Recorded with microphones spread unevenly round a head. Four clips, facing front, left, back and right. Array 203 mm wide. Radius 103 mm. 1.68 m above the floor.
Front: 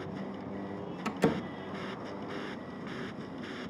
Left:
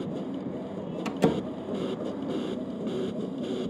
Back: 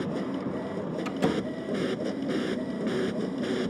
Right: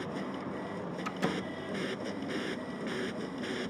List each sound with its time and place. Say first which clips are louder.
0.0 s a machine running: left 4 dB, back 9 dB; 150° left
1.1 s a door slam: left 10 dB, back 1 dB; 95° left